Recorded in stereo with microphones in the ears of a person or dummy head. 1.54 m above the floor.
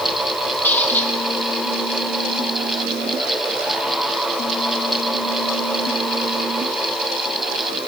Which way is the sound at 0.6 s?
10° left (ahead or behind).